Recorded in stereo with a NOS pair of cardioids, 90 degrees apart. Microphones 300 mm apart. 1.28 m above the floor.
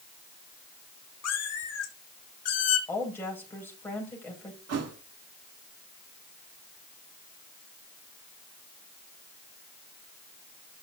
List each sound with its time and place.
1.2 s a cat meowing: 55° left, 3 m
2.9 s a woman speaking: 5° left, 6 m
4.7 s a thud: 60° right, 1.6 m